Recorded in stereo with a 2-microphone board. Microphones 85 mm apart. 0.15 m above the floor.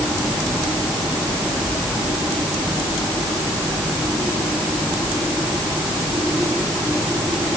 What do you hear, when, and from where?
Only background noise.